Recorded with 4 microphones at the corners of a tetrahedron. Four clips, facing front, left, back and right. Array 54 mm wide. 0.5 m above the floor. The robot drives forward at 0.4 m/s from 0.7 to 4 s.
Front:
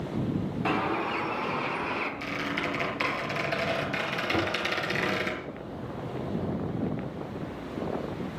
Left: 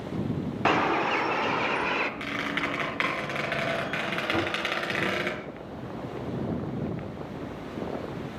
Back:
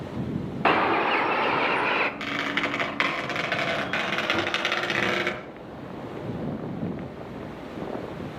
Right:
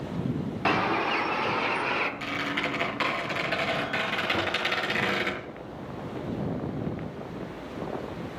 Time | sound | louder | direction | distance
0.7 | a bird | left 1 dB, back 8 dB | 170° left | 1.0 m
2.2 | a squeak | even, back 4 dB | 160° left | 5 m
4.3 | knocking | even, even | 90° left | 7 m